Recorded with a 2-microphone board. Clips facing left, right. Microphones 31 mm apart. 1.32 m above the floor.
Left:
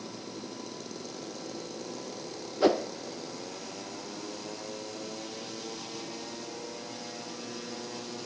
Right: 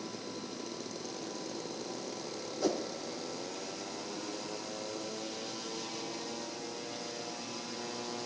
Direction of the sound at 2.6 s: 55° left (ahead or behind).